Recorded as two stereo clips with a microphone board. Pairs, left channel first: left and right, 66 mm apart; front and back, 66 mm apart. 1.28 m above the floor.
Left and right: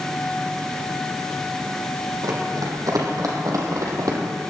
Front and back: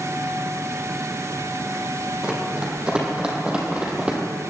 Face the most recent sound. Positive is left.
turn(degrees=-110)